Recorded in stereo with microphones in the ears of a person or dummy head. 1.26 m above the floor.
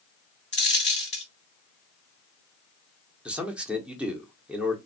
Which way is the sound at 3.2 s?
5° right (ahead or behind).